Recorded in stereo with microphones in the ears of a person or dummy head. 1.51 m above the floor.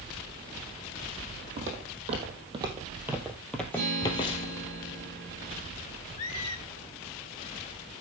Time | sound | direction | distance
1.6 | footsteps | 45° right (ahead or behind) | 3.5 m
3.7 | a guitar | 50° right (ahead or behind) | 9 m
6.2 | a squeak | 25° left (ahead or behind) | 2.5 m